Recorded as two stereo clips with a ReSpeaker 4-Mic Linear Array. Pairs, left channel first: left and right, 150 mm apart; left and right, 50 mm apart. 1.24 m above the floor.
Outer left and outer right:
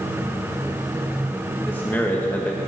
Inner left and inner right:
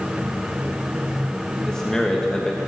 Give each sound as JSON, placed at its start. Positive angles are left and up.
{"t": 1.6, "sound": "a man speaking", "side_deg": 10, "distance_m": 1.7}